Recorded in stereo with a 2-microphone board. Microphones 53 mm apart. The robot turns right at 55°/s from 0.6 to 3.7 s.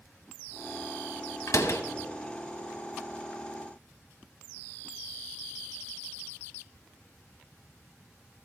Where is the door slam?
70° left (ahead or behind), 1.0 m; by 1.8 s 65° left (ahead or behind), 1.0 m.